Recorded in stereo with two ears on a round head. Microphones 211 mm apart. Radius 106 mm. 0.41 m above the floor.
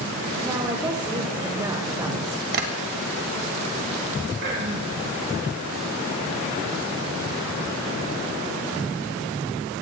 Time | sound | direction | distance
0.4 | a woman speaking | 20° right (ahead or behind) | 1.3 m
2.5 | tapping | 50° right (ahead or behind) | 1.5 m
4.4 | throat clearing | 55° right (ahead or behind) | 3 m